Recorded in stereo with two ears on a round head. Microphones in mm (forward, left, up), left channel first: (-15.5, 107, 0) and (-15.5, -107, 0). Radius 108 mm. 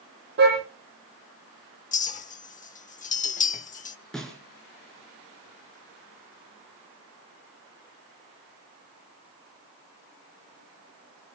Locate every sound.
0.4 s a car horn: 45° right (ahead or behind), 8.5 m
1.9 s a clink: 35° left (ahead or behind), 0.9 m
4.1 s a snare drum: centre (ahead or behind), 4 m